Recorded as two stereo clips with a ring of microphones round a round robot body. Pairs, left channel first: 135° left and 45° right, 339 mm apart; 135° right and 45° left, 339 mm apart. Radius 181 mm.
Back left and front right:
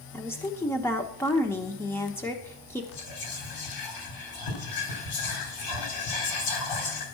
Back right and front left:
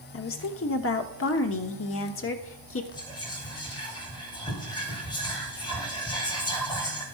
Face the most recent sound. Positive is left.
turn(degrees=150)